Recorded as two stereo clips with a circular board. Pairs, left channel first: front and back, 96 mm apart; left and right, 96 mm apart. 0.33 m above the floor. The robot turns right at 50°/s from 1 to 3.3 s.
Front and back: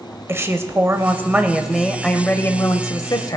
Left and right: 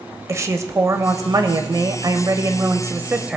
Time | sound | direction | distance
0.3 | a woman speaking | 130° right | 1.1 m